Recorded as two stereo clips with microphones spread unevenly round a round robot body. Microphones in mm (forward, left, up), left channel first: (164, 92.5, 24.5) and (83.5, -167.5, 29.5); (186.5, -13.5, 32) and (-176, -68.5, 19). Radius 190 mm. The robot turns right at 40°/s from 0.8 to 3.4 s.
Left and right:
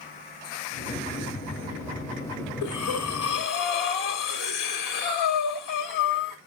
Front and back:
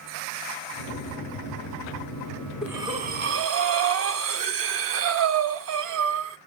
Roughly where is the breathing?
Left.